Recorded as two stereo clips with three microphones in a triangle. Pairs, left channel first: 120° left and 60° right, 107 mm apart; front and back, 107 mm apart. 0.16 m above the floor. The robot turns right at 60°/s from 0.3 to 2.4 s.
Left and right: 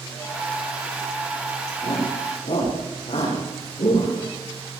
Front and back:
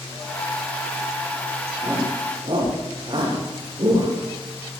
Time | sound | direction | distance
1.8 | a shout | 100° left | 9.5 m